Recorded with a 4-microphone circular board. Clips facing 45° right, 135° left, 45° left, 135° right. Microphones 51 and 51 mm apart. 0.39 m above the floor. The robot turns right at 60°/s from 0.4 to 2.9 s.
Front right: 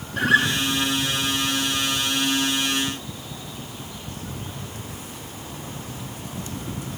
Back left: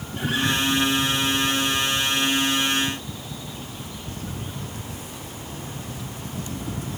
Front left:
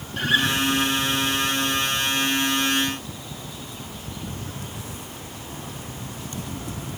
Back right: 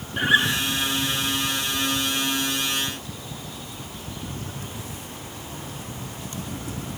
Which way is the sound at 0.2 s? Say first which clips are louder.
Front right 6 dB, back right 2 dB; 65° right.